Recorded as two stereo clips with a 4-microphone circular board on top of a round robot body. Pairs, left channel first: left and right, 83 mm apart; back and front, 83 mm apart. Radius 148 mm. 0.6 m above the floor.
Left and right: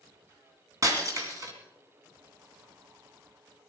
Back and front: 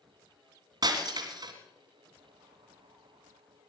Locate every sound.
0.8 s breaking glass: 40° right, 2.5 m